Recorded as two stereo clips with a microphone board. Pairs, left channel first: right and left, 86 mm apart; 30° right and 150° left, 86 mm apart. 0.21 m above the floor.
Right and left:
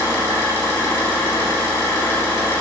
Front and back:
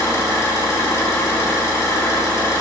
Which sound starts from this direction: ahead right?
An engine running, at 0.0 s.